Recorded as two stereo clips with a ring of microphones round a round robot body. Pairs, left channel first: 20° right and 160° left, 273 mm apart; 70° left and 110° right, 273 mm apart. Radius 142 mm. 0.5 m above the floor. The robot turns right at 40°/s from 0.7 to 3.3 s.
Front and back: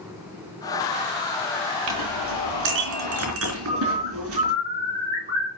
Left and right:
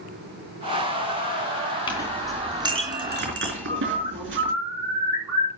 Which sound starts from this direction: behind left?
A clink, at 1.9 s.